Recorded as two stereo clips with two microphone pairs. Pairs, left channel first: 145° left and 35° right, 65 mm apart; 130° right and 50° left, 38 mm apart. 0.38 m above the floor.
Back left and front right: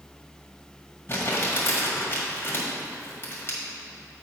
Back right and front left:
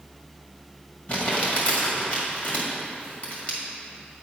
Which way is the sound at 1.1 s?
175° right.